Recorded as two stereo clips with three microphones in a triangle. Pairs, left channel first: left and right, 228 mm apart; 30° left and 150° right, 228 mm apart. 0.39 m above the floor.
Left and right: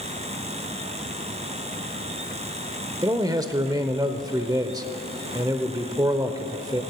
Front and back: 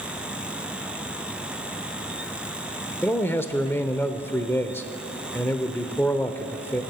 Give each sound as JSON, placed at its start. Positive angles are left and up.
{"t": 3.0, "sound": "a man speaking", "azimuth_deg": -40, "distance_m": 0.8}